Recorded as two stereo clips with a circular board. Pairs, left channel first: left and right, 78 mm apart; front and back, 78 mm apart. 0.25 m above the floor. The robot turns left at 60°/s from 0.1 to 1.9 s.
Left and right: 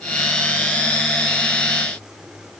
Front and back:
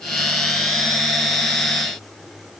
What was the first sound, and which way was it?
Only background noise.